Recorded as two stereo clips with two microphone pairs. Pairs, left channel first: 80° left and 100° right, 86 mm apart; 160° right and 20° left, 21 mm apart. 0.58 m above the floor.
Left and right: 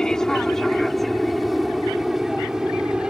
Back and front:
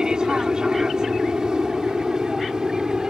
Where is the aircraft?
5° left; by 3.1 s 20° right.